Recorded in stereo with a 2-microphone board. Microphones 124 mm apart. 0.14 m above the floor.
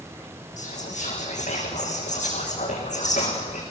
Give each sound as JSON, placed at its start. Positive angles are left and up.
{"t": 0.6, "sound": "whispering", "side_deg": 80, "distance_m": 6.5}